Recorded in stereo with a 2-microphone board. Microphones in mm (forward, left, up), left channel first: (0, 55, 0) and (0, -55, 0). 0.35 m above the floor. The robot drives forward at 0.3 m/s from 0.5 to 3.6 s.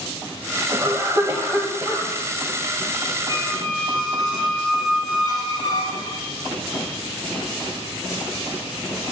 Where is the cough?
35° right (ahead or behind), 1.5 m; by 2.1 s 30° right (ahead or behind), 1.8 m.